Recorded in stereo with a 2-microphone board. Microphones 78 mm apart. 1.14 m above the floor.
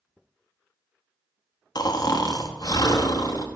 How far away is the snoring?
About 0.8 m.